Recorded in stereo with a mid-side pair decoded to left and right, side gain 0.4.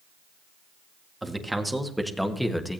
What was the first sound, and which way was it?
A man speaking, 10° right.